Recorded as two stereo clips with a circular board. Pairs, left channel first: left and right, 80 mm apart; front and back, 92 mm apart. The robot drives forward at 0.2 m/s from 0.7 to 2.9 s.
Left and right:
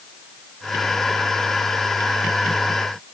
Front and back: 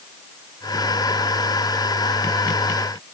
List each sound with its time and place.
Only background noise.